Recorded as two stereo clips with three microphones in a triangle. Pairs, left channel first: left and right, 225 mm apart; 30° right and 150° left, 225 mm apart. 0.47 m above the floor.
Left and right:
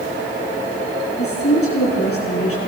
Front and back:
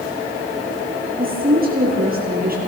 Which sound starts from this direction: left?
A woman speaking, at 1.2 s.